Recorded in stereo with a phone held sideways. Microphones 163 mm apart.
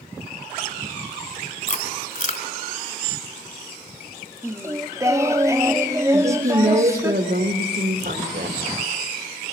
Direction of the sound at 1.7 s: 55° left (ahead or behind).